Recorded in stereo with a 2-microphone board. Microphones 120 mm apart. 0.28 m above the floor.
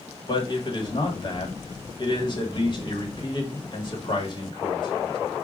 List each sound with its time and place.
0.3 s a man speaking: 40° left (ahead or behind), 1.3 m